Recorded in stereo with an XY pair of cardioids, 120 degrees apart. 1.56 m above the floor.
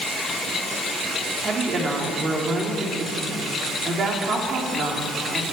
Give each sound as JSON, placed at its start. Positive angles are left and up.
{"t": 1.4, "sound": "a woman speaking", "azimuth_deg": -40, "distance_m": 3.5}